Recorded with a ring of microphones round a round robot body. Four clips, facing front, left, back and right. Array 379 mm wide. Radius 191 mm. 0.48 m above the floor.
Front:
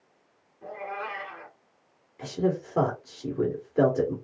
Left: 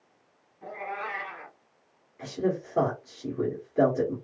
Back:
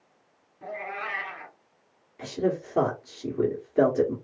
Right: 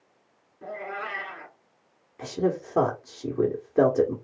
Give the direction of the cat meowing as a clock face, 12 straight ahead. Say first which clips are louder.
Right 1 dB, even; 5 o'clock.